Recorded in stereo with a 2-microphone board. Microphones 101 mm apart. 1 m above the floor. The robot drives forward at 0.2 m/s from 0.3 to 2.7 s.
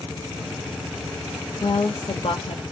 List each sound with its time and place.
1.6 s a woman speaking: 65° left (ahead or behind), 1.0 m